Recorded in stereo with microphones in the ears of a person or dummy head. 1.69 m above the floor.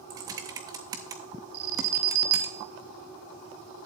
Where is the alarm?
70° right (ahead or behind), 0.9 m.